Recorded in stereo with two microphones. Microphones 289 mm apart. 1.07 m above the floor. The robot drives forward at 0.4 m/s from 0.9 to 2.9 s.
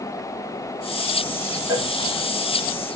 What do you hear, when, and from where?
1.7 s a cowbell: 10° right (ahead or behind), 1.6 m